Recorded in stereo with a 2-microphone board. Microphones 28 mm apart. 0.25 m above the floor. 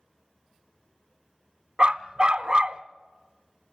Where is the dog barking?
35° right (ahead or behind), 0.6 m.